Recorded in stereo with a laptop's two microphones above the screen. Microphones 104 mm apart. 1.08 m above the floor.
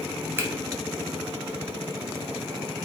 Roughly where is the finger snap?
Right.